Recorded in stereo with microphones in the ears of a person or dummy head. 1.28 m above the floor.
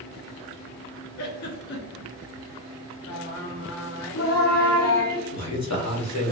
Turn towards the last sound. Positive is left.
turn(degrees=70)  # may be behind; listen again after turning